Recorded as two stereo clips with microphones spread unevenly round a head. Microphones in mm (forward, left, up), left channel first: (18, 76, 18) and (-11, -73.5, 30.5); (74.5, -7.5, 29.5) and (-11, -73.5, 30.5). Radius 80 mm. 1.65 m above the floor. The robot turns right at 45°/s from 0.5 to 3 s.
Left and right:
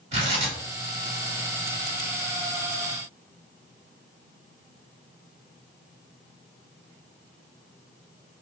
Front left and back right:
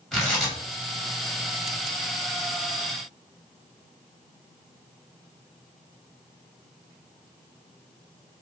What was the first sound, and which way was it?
Tearing paper, 50° right.